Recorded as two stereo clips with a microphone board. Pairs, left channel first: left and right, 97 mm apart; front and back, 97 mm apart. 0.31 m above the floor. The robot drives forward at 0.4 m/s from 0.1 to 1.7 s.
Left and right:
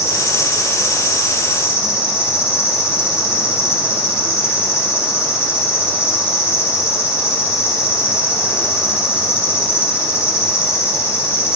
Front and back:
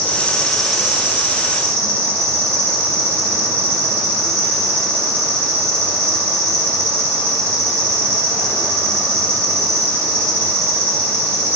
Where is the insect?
65° left, 0.9 m; by 11.6 s 135° left, 0.9 m.